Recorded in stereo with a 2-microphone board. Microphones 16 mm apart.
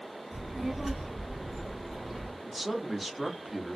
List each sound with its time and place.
0.3 s a child speaking: 25° right (ahead or behind), 1.6 m; by 2.3 s 35° left (ahead or behind), 1.2 m
2.4 s a man speaking: 5° right (ahead or behind), 0.6 m